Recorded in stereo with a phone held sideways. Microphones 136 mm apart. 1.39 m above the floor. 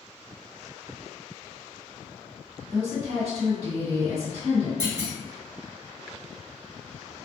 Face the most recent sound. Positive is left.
turn(degrees=-20)  # may be behind; listen again after turning